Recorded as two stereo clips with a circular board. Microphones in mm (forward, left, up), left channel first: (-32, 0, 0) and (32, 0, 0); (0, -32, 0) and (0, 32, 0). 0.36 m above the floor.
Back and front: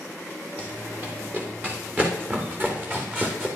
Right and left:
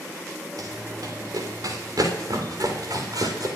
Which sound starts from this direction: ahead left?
Running footsteps, at 0.6 s.